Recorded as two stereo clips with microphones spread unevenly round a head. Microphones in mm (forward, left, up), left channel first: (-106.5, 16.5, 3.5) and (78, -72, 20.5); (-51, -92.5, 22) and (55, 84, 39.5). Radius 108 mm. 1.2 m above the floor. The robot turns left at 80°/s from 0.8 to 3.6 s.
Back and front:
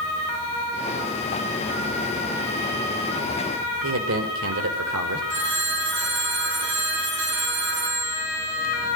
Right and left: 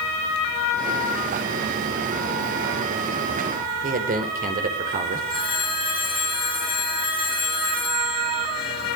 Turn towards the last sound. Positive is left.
turn(degrees=-55)